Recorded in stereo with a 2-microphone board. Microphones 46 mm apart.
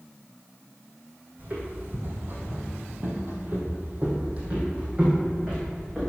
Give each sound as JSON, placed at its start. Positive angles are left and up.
{"t": 1.4, "sound": "footsteps", "side_deg": -40, "distance_m": 3.0}